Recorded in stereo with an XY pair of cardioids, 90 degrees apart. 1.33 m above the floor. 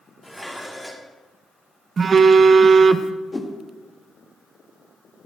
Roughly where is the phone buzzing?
Ahead right.